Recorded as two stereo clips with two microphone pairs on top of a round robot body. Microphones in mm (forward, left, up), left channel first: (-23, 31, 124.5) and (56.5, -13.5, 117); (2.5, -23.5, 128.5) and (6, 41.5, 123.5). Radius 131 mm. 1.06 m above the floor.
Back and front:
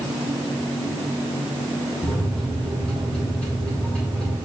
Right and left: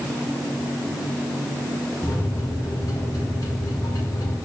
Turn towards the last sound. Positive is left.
turn(degrees=-130)